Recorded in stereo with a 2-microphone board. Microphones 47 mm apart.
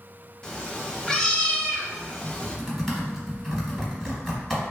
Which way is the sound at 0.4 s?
15° left (ahead or behind).